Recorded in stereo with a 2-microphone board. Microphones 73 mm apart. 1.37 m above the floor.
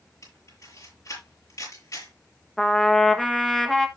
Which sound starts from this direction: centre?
A trumpet, at 2.6 s.